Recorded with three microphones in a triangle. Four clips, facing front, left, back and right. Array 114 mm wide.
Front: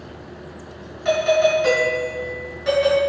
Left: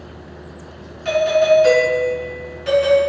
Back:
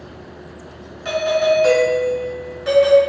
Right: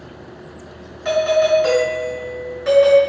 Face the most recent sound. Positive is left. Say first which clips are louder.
# left 1 dB, even
turn(degrees=-75)